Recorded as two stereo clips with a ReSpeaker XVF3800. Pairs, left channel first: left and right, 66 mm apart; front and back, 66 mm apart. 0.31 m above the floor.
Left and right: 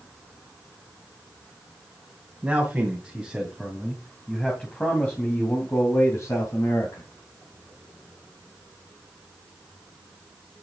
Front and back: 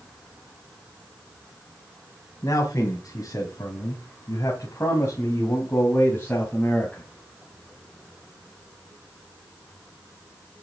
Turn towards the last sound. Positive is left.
turn(degrees=60)